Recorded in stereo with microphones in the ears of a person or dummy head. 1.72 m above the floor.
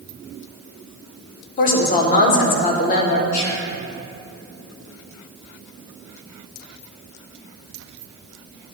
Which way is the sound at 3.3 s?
90° left.